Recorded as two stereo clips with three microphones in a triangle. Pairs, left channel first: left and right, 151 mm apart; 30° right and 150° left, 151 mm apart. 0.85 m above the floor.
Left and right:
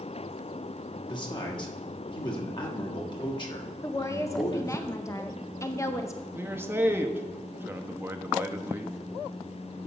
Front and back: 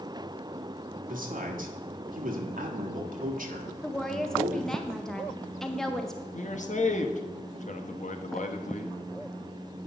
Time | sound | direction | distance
1.1 | a man speaking | 145° left | 1.6 m
3.8 | a woman speaking | 50° left | 0.5 m
6.3 | a man speaking | 15° right | 0.9 m